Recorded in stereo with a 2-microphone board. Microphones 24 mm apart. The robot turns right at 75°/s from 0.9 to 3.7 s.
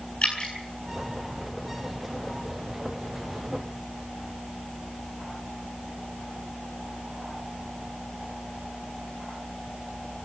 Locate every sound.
0.2 s dripping: 50° left (ahead or behind), 7.5 m